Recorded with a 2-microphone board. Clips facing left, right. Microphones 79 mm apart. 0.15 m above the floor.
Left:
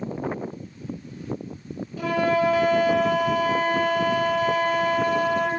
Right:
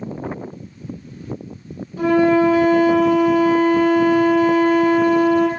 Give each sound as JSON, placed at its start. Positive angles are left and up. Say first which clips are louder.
{"t": 2.0, "sound": "a flute", "louder": "right 8 dB", "side_deg": -45, "distance_m": 0.6}